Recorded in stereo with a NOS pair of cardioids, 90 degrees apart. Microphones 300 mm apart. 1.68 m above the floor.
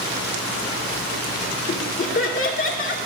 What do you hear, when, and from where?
1.7 s laughter: 45° left, 2.5 m